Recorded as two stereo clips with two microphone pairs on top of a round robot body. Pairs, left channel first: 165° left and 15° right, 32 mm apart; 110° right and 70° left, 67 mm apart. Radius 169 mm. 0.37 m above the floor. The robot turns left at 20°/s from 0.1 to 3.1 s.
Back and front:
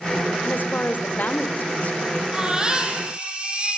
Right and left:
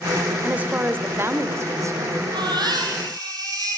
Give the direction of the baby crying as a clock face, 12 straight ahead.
10 o'clock.